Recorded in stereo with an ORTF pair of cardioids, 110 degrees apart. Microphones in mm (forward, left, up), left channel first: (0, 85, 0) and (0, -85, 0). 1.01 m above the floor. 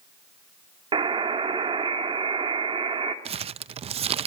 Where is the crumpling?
40° right, 0.6 m.